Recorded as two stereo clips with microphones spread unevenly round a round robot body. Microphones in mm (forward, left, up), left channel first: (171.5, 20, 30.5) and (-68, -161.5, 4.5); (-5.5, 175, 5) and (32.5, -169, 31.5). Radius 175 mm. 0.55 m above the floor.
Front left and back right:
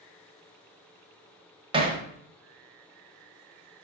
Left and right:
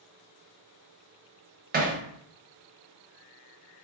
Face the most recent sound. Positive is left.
turn(degrees=-115)